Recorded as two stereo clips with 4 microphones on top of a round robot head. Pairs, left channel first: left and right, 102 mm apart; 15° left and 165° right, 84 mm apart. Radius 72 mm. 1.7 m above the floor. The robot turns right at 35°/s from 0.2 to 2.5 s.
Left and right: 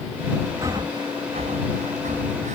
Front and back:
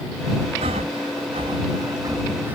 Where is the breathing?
155° right; by 2.6 s 90° right.